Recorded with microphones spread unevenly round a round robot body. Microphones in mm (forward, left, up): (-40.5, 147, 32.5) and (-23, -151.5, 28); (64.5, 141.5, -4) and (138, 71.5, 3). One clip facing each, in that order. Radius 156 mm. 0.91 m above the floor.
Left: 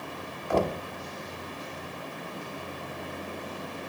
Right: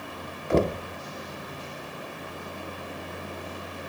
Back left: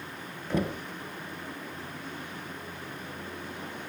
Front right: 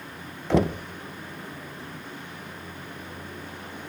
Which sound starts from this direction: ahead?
Knocking, at 0.5 s.